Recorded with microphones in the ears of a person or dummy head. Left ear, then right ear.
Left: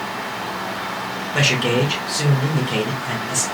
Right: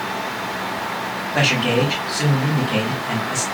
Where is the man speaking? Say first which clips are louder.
Even; 80° left, 1.9 m.